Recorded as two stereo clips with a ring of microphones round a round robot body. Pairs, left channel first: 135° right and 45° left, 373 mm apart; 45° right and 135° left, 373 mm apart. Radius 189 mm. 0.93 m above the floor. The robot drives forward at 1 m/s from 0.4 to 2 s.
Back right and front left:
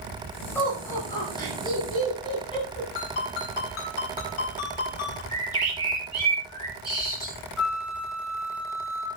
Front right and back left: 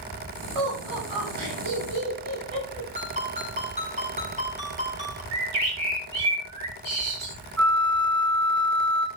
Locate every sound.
0.6 s laughter: 140° left, 5.5 m; by 2.9 s 150° left, 7 m
3.0 s a ringtone: 155° right, 4.5 m
5.3 s a bird: 145° left, 7.5 m
7.6 s a flute: 135° left, 4.5 m